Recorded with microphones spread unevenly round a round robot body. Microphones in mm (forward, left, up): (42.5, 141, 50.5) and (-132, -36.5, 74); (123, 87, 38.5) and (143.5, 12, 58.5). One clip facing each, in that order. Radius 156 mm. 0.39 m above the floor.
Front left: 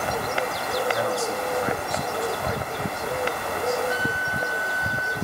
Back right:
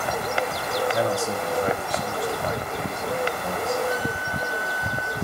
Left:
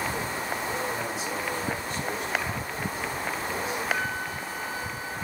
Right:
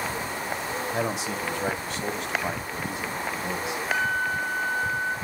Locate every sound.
0.9 s a man speaking: 75° right, 2 m
3.9 s a flute: 90° right, 1.5 m